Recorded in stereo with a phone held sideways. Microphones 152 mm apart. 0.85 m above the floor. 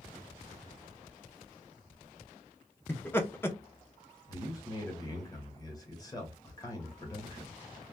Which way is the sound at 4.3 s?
25° left (ahead or behind).